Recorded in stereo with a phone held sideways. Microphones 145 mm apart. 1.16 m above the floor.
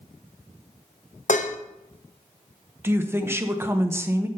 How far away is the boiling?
I don't hear boiling.